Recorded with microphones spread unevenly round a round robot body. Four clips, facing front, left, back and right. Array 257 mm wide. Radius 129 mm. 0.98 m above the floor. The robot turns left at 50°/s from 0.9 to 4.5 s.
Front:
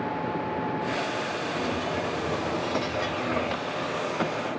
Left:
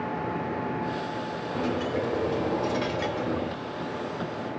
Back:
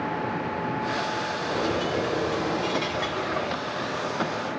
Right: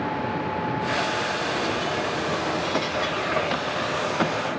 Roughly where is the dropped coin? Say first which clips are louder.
Right 2 dB, back 5 dB; behind.